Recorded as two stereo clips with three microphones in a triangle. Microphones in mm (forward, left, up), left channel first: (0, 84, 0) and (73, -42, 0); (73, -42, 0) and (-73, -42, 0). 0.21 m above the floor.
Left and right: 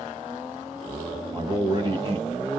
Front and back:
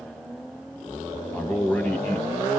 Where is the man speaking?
65° right, 1.1 m.